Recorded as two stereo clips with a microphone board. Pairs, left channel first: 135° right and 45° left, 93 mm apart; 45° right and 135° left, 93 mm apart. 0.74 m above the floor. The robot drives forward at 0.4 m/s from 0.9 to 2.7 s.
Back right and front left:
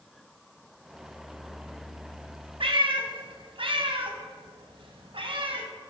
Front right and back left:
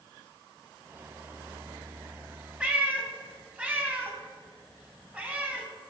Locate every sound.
2.6 s a cat meowing: 55° left, 0.5 m; by 5.7 s 60° left, 0.5 m